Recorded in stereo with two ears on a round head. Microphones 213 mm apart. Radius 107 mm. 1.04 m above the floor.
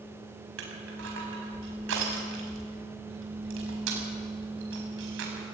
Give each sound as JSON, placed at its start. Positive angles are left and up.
{"t": 0.6, "sound": "crushing", "side_deg": -60, "distance_m": 5.0}